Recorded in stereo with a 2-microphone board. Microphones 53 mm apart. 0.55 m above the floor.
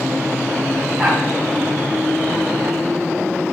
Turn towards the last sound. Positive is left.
turn(degrees=-15)  # may be behind; listen again after turning